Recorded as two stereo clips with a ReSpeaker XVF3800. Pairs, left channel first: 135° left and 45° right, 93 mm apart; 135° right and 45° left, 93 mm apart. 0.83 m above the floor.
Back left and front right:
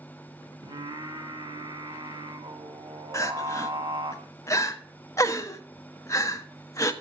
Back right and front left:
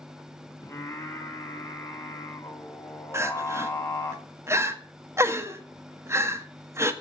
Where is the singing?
75° right, 2 m.